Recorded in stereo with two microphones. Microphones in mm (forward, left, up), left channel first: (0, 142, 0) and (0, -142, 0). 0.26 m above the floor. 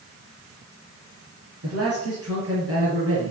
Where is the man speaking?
60° right (ahead or behind), 5 m; by 3.3 s 50° right (ahead or behind), 5 m.